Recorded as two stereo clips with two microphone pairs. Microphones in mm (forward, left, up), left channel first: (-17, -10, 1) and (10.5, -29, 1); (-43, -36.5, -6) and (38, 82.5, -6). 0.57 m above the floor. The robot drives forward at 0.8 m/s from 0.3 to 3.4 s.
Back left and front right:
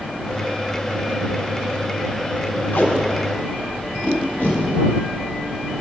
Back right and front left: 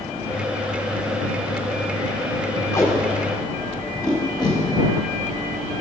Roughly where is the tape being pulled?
Behind.